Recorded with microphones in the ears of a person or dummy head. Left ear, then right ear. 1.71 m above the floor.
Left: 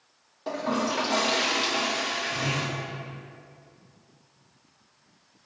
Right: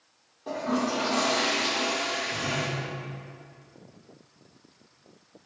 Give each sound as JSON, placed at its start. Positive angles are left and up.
{"t": 0.5, "sound": "a toilet flushing", "side_deg": 35, "distance_m": 1.2}